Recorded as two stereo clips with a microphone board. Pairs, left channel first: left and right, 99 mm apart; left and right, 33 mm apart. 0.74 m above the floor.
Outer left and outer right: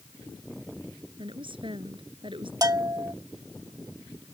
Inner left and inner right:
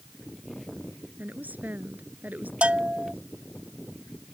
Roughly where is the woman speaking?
Right.